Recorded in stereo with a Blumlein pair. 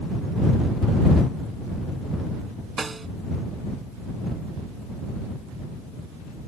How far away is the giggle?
No giggle in this recording.